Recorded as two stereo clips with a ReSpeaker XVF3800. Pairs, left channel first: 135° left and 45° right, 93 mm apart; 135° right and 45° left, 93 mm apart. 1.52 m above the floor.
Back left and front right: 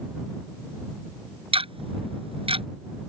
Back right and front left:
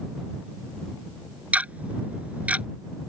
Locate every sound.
1.5 s ticking: 30° right